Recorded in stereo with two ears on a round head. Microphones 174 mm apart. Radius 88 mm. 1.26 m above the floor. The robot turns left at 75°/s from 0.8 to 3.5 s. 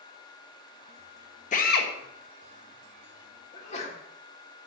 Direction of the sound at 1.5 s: 140° left.